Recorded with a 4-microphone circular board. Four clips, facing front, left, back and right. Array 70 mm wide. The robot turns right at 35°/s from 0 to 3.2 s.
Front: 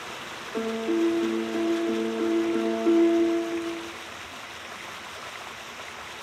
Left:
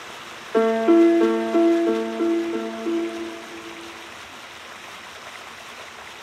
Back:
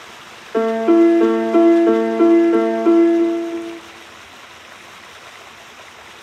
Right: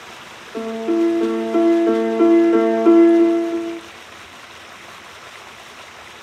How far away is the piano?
About 0.5 m.